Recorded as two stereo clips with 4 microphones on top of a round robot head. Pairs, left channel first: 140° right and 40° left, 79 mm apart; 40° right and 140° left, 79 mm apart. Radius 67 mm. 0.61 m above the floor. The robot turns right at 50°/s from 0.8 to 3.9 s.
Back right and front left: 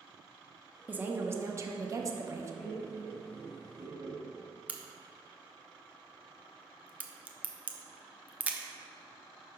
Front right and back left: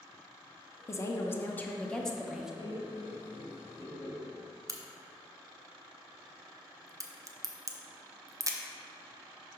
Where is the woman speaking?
20° right, 0.7 m; by 2.5 s 60° left, 0.7 m.